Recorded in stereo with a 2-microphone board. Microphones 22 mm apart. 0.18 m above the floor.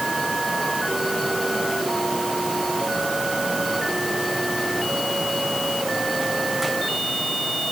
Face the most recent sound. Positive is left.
No sound to turn to.